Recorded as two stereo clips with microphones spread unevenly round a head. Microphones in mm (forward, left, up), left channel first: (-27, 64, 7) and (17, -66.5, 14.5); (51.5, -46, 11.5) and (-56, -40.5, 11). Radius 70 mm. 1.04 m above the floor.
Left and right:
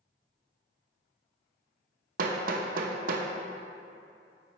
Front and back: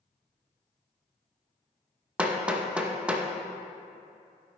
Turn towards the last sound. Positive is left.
turn(degrees=-105)